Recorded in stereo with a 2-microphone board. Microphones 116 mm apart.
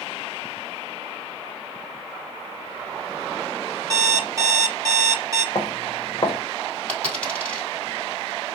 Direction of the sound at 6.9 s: 10° left (ahead or behind).